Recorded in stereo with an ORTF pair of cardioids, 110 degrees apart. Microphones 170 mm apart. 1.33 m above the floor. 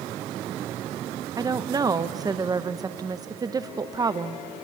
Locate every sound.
1.4 s a woman speaking: 20° right, 0.9 m